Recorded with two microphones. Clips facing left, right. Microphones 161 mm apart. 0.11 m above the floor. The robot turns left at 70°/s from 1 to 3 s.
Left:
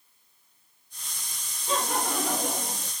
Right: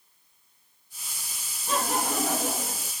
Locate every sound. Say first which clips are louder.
1.7 s laughter: right 1 dB; 125° right, 2 m; by 2.9 s 145° left, 2 m